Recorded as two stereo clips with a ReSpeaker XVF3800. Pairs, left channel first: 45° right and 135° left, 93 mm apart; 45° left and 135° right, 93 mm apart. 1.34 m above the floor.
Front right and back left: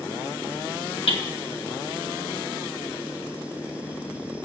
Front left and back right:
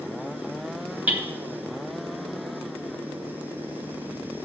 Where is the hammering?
60° right, 1.4 m.